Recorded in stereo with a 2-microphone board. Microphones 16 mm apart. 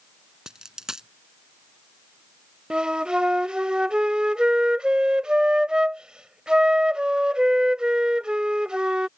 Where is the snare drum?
No snare drum in this recording.